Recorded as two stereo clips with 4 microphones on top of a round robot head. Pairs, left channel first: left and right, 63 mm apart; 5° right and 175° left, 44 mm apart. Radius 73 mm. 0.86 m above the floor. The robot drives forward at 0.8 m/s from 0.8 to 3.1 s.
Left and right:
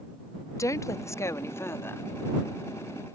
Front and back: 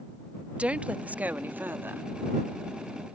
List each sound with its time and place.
0.5 s a woman speaking: 115° left; by 2.0 s 140° left